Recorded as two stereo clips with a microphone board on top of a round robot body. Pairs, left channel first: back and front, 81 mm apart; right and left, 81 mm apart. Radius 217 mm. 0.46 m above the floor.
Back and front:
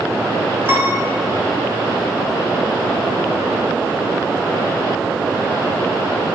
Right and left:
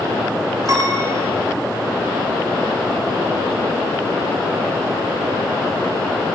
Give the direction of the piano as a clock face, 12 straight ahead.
10 o'clock.